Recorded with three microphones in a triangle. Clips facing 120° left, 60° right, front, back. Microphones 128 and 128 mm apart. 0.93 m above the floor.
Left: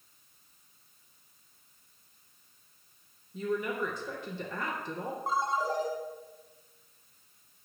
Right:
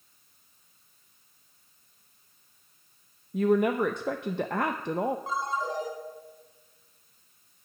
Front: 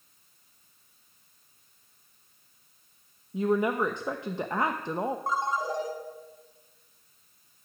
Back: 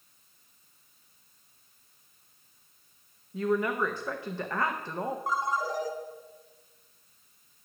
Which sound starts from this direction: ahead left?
A ringtone, at 5.3 s.